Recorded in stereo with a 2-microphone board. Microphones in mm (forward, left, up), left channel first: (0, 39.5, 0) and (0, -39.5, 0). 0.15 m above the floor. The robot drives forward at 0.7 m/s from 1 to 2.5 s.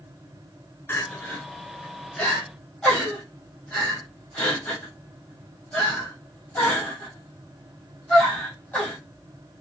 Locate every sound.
0.9 s crying: 30° left (ahead or behind), 0.6 m; by 9.0 s 10° left (ahead or behind), 1.6 m